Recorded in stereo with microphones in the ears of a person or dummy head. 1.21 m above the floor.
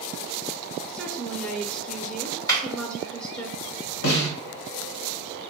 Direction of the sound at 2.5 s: 20° left (ahead or behind).